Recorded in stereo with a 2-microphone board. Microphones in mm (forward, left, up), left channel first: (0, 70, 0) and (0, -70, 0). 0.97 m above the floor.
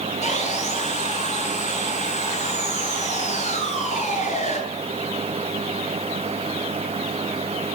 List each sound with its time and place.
0.2 s sawing: 55° left (ahead or behind), 8.5 m